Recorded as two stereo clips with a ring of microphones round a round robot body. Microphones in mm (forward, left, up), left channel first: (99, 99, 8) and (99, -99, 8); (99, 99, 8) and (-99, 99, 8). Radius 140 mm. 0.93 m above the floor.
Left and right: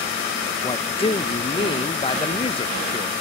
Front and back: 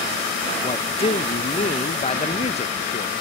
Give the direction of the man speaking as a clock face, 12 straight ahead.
11 o'clock.